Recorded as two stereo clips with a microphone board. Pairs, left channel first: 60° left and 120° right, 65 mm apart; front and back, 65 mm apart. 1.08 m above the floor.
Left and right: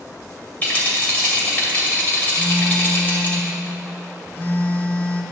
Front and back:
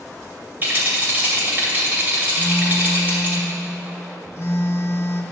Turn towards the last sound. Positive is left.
turn(degrees=15)